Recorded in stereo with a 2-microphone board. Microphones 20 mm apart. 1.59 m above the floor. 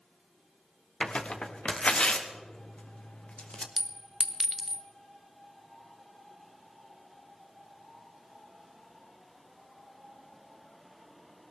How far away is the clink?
About 0.6 m.